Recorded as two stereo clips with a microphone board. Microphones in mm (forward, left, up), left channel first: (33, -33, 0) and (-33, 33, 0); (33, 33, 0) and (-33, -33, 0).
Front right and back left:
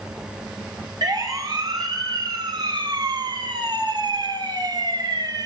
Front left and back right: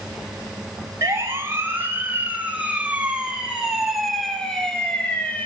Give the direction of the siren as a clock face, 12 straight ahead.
6 o'clock.